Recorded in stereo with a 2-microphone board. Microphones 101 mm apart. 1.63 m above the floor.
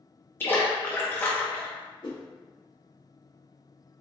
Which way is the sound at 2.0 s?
50° left (ahead or behind).